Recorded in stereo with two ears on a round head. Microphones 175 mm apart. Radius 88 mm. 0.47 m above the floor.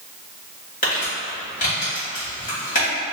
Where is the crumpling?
45° left (ahead or behind), 1.8 m.